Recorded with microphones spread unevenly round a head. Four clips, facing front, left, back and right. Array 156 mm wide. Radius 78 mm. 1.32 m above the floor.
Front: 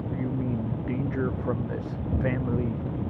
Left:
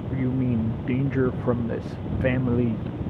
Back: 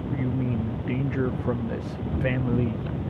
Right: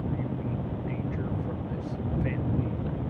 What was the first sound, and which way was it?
A man speaking, 95° left.